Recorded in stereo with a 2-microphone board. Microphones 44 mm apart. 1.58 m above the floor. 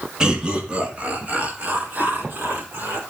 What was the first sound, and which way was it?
Laughter, 15° right (ahead or behind).